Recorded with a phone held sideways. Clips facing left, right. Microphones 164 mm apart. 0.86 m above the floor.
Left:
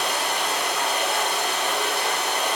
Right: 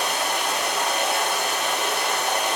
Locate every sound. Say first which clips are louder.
0.0 s running water: right 1 dB; 45° right (ahead or behind), 1.1 m